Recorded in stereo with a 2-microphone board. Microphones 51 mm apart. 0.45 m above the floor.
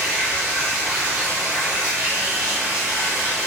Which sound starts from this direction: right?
Running water, at 0.0 s.